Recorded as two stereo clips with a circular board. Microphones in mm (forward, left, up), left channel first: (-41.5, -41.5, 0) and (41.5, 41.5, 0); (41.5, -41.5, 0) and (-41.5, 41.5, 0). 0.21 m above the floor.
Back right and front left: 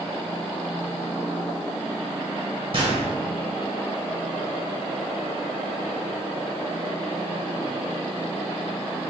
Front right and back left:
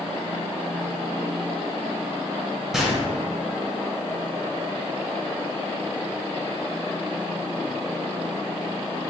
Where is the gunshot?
50° left, 1.1 m.